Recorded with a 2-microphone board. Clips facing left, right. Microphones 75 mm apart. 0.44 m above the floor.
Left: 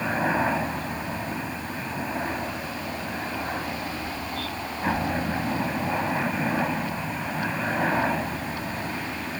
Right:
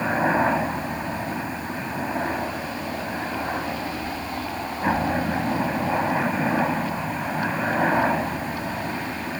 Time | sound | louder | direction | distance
0.0 | a helicopter | right 3 dB | 15° right (ahead or behind) | ?